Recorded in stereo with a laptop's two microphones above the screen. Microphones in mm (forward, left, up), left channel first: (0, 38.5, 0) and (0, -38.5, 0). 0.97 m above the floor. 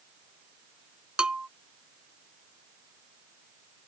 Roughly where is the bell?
Centre.